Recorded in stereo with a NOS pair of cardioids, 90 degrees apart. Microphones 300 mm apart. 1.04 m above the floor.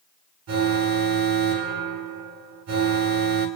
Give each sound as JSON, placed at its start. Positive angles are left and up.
{"t": 0.5, "sound": "an alarm", "azimuth_deg": -65, "distance_m": 9.5}